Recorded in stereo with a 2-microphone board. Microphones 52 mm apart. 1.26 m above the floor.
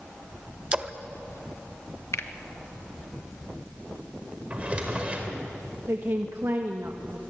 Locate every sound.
0.7 s a splash: 20° right (ahead or behind), 0.8 m
2.1 s a finger snap: 60° left (ahead or behind), 1.2 m
4.5 s a drawer: 25° right (ahead or behind), 3 m
5.9 s a woman speaking: 55° right (ahead or behind), 1.5 m